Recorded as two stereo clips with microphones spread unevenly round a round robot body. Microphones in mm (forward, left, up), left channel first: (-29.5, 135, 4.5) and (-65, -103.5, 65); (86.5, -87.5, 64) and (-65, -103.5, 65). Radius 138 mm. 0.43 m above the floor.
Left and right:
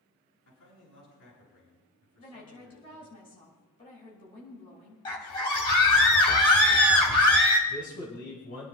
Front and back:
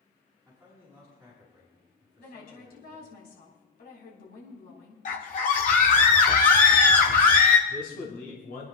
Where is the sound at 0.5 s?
90° left, 6.5 m.